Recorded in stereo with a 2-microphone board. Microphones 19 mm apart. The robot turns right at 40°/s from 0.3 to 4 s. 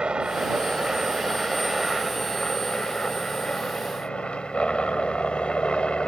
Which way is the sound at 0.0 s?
60° right.